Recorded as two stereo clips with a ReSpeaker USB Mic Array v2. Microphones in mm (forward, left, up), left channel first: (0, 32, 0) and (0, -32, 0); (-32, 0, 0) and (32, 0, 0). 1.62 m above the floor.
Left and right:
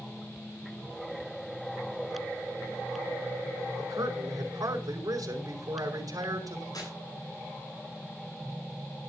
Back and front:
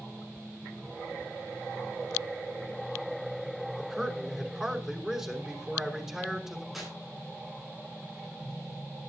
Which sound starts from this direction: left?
Tearing paper, at 6.7 s.